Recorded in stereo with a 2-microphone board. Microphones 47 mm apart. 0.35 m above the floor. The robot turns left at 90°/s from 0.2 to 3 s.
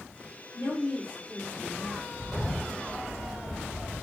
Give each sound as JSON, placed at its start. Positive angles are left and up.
{"t": 0.5, "sound": "a woman speaking", "azimuth_deg": 75, "distance_m": 7.5}
{"t": 2.2, "sound": "a bird", "azimuth_deg": -150, "distance_m": 3.5}